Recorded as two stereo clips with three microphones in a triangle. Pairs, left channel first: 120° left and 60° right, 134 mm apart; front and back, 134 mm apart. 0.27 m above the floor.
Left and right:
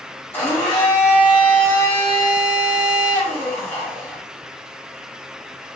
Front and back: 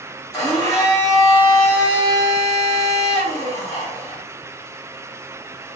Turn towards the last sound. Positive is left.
turn(degrees=50)